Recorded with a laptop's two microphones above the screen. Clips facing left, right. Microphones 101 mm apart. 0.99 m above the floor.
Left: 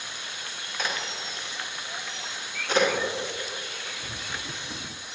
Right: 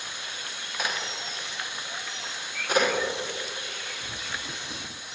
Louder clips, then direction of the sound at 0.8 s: Even; 10° right (ahead or behind).